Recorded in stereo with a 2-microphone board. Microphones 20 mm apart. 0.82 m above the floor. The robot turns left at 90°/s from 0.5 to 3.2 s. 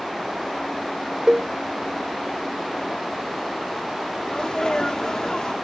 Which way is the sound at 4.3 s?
40° left (ahead or behind).